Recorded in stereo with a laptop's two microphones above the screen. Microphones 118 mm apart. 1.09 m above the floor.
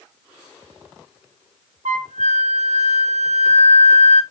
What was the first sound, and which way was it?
A flute, 90° right.